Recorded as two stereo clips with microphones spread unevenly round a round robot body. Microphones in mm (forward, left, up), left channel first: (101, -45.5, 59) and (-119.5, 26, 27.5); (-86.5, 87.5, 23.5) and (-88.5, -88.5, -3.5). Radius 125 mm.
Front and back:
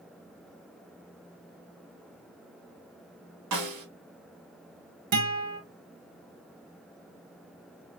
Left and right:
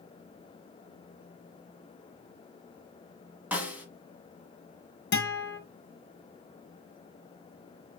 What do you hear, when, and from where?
3.5 s a snare drum: 175° right, 1.1 m
5.1 s a guitar: 115° left, 1.2 m